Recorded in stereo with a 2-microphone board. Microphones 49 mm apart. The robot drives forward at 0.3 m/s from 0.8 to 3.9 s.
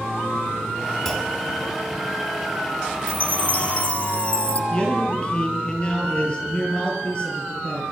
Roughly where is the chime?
Left.